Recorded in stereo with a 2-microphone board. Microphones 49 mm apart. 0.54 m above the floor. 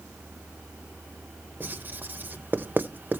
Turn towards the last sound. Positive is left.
turn(degrees=-40)  # may be behind; listen again after turning